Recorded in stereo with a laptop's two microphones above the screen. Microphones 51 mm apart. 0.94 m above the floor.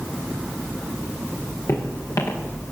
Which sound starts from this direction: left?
Footsteps, at 1.7 s.